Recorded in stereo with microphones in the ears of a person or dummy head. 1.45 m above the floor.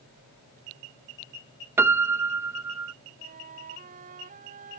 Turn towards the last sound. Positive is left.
turn(degrees=-45)  # may be behind; listen again after turning